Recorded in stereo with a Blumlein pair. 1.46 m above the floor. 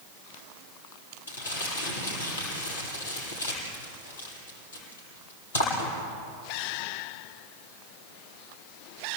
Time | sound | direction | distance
1.3 | crumpling | 70° left | 8.5 m